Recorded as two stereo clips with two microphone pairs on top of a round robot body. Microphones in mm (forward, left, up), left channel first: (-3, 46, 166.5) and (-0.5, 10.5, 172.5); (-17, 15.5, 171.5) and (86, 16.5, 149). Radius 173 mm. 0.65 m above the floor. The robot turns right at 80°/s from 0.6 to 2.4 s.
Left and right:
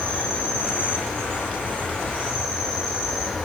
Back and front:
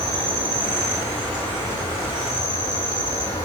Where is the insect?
35° left, 1.2 m; by 3.5 s straight behind, 1.2 m.